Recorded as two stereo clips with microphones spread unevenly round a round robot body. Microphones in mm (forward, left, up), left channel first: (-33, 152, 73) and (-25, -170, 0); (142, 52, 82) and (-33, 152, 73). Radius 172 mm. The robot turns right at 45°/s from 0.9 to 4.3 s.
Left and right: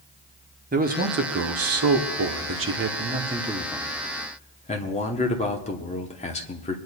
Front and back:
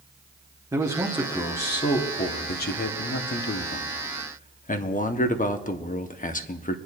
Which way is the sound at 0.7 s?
140° right.